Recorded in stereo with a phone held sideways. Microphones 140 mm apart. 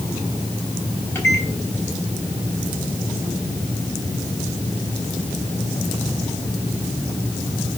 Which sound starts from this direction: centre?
A microwave, at 1.1 s.